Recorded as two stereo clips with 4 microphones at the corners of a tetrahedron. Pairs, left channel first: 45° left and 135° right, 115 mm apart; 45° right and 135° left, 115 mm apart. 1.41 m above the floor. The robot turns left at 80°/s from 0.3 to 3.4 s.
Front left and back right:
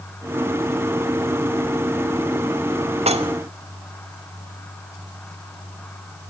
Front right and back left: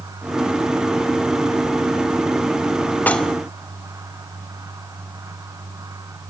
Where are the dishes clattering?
120° right, 2 m; by 3.3 s 135° right, 2 m.